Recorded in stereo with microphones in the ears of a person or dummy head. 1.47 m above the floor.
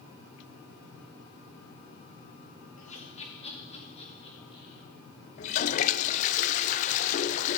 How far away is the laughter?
About 2 m.